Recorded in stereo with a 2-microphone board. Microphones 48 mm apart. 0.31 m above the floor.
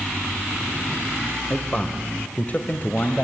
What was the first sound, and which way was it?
A man speaking, 20° left (ahead or behind).